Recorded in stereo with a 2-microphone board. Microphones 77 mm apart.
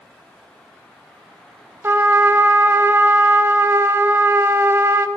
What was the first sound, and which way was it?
A trumpet, 35° right (ahead or behind).